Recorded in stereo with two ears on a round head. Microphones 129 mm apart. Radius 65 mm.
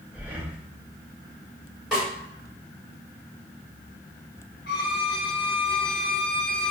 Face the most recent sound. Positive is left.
turn(degrees=65)  # may be behind; listen again after turning